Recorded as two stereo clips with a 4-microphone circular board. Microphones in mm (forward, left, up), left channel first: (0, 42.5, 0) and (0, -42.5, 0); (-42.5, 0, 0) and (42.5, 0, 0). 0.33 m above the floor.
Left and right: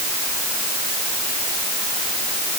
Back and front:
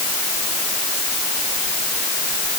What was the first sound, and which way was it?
Only background noise.